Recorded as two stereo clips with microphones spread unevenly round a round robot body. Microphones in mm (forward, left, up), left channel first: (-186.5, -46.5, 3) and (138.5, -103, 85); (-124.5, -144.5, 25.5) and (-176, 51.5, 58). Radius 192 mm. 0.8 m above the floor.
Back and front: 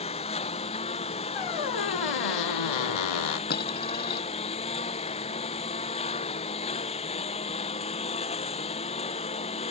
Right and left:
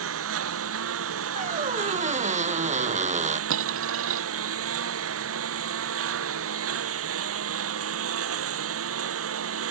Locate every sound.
0.0 s a lawn mower: 95° left
1.4 s a squeak: 160° left
3.5 s a dropped coin: 100° left